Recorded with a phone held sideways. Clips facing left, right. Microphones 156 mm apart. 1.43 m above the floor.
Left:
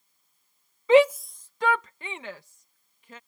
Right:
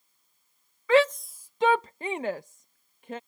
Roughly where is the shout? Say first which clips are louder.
Left 4 dB; left.